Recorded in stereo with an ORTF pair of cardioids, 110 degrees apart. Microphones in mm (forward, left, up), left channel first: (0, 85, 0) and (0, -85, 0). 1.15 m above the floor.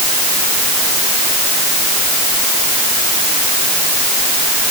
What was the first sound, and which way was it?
Only background noise.